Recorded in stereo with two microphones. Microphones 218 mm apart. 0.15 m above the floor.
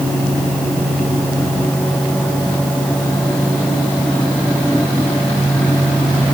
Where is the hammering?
No hammering in this recording.